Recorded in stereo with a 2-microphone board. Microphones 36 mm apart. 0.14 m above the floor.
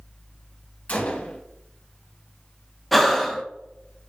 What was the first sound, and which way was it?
A gunshot, 40° left (ahead or behind).